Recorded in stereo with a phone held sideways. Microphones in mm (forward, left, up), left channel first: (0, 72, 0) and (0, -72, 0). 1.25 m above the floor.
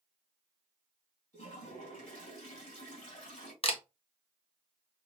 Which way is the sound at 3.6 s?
40° left (ahead or behind).